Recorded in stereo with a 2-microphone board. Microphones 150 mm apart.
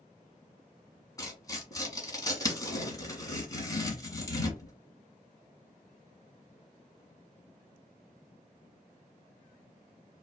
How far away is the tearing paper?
About 1.4 m.